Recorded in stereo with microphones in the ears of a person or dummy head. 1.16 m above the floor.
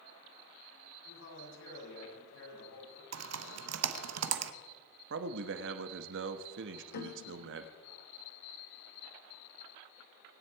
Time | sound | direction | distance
1.1 | a man speaking | 85° left | 6.5 m
3.1 | typing on a keyboard | 80° right | 1.1 m
5.1 | a man speaking | 65° right (ahead or behind) | 1.2 m
6.9 | a piano | 55° left (ahead or behind) | 0.9 m